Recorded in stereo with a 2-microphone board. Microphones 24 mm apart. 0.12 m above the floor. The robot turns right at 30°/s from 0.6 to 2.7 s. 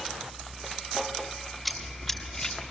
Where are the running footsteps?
Centre (ahead or behind), 7 m; by 2.6 s 30° left (ahead or behind), 7 m.